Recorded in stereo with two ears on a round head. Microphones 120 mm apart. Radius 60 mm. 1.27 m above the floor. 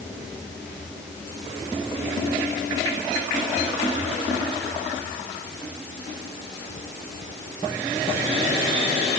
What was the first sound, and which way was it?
Only background noise.